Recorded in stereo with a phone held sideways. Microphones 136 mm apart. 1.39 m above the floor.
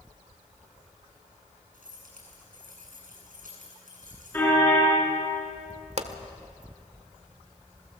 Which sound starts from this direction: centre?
A car horn, at 4.3 s.